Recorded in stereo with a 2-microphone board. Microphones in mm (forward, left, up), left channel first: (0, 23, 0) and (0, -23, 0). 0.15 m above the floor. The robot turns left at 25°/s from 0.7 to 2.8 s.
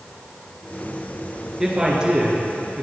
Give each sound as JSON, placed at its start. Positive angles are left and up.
{"t": 1.6, "sound": "a man speaking", "side_deg": -10, "distance_m": 1.9}